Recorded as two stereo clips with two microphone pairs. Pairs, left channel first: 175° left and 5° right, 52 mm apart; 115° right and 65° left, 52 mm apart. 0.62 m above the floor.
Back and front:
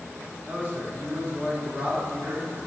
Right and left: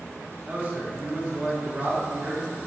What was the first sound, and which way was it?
A man speaking, 20° left.